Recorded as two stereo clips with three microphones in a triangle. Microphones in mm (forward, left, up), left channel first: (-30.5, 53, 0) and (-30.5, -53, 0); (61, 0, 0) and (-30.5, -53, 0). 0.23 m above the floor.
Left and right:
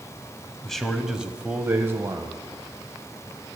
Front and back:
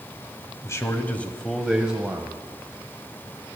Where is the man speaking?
10° left, 1.2 m; by 2.4 s 105° right, 1.3 m.